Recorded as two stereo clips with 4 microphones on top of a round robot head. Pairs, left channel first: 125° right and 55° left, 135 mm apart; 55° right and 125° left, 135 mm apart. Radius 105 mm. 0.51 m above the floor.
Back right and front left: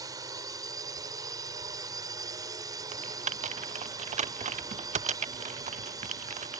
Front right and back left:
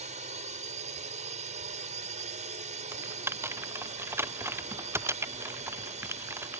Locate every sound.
0.0 s a drone: 115° left
2.9 s typing on a keyboard: 60° left